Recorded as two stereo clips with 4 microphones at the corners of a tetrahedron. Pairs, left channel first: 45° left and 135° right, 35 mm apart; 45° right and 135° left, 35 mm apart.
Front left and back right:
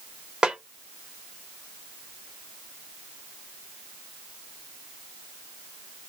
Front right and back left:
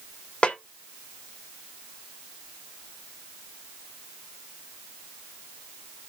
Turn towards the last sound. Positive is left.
turn(degrees=-85)